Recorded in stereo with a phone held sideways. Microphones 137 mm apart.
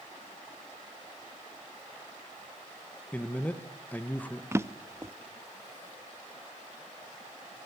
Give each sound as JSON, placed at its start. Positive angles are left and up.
{"t": 3.1, "sound": "a man speaking", "side_deg": 10, "distance_m": 1.4}
{"t": 4.5, "sound": "a drawer", "side_deg": -20, "distance_m": 0.7}